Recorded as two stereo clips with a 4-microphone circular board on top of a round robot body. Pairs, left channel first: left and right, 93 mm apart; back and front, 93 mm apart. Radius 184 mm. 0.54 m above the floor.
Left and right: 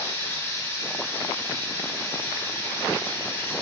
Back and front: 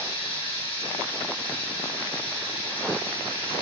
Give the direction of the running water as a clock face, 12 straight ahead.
7 o'clock.